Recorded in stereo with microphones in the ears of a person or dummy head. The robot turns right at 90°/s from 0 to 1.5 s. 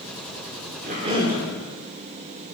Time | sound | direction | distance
0.8 | a cough | 55° right | 1.4 m